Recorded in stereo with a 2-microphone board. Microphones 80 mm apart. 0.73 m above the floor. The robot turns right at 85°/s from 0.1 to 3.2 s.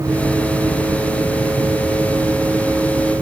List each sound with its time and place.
Only background noise.